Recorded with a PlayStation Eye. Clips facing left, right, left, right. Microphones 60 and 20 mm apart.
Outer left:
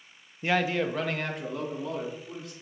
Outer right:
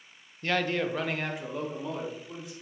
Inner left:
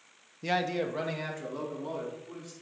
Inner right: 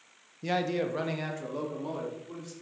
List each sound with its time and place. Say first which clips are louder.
0.4 s a man speaking: outer left 2 dB, even; 15° left (ahead or behind), 0.6 m; by 2.5 s 10° right (ahead or behind), 3.5 m